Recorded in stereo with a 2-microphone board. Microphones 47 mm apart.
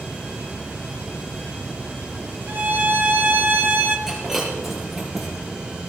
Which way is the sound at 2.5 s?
45° right (ahead or behind).